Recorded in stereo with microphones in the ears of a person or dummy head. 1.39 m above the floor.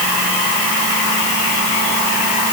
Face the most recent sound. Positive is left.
No sound to turn to.